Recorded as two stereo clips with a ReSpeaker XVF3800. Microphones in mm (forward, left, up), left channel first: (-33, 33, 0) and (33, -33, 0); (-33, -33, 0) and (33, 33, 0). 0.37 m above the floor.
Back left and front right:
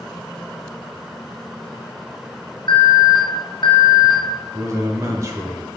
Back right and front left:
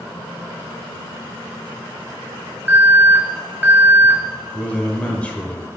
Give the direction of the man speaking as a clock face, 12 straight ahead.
2 o'clock.